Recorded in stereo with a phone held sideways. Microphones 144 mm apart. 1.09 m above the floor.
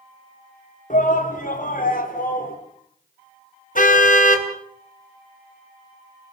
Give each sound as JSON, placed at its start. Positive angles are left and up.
{"t": 0.9, "sound": "a shout", "side_deg": 60, "distance_m": 3.5}
{"t": 3.8, "sound": "a car horn", "side_deg": 65, "distance_m": 3.0}